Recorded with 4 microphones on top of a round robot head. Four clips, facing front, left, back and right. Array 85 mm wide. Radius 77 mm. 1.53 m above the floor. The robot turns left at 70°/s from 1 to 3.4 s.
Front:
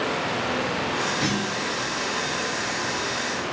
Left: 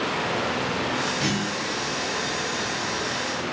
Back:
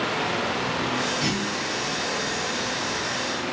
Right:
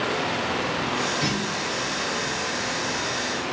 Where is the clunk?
45° left, 1.6 m; by 1.7 s 10° left, 1.6 m.